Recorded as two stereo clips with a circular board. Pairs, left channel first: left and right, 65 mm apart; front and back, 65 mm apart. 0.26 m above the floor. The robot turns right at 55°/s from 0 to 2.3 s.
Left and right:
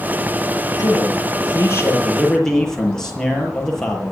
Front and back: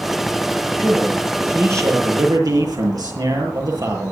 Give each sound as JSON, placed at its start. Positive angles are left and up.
{"t": 0.8, "sound": "a man speaking", "azimuth_deg": 90, "distance_m": 7.0}